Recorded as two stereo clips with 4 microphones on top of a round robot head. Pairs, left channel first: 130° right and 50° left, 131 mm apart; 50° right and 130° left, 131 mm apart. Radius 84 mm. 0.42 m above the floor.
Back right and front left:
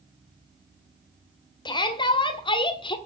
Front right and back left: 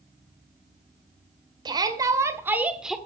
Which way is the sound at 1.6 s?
Straight behind.